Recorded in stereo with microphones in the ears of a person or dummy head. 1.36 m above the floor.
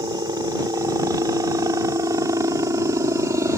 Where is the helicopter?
15° right (ahead or behind).